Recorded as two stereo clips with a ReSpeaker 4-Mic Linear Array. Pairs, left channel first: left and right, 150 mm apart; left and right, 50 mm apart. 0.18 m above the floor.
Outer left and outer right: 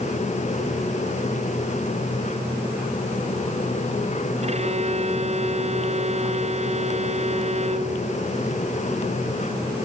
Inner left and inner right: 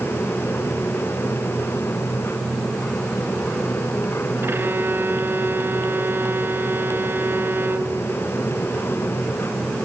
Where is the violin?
45° right (ahead or behind).